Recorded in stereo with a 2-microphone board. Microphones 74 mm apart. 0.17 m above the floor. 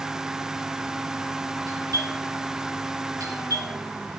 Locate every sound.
1.7 s a doorbell: 55° right (ahead or behind), 3.5 m